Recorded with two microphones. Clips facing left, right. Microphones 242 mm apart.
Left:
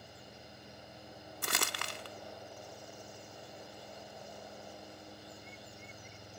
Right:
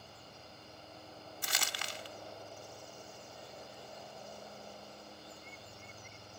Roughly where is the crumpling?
Left.